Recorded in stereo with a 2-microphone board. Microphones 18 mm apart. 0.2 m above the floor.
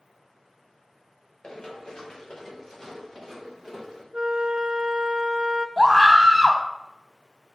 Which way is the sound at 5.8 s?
10° right (ahead or behind).